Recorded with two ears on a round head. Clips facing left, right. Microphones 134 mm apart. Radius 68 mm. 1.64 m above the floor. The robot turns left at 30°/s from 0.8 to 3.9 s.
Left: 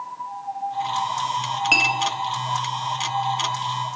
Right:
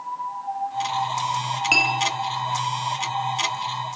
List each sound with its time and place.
1.7 s a clink: 5° right (ahead or behind), 1.1 m